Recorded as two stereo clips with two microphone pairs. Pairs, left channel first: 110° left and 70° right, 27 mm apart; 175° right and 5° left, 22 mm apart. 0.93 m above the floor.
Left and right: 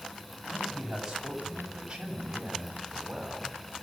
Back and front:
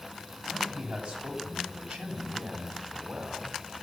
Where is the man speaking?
5° left, 7 m; by 3.8 s 10° right, 7.5 m.